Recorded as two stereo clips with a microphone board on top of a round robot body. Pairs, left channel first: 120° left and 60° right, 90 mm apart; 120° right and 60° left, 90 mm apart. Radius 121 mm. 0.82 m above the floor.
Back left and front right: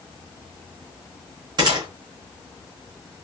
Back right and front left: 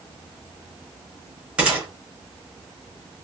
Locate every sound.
1.6 s a gunshot: 20° right, 1.0 m